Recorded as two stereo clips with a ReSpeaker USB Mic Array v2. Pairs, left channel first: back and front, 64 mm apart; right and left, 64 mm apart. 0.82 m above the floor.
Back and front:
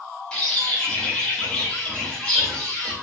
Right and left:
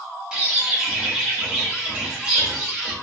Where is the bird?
135° left, 0.8 m.